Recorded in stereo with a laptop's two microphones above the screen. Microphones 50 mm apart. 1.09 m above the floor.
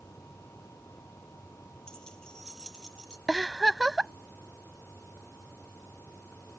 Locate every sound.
0.0 s a machine running: 75° left (ahead or behind)
1.9 s keys jangling: 15° left (ahead or behind)
3.3 s a giggle: 5° right (ahead or behind)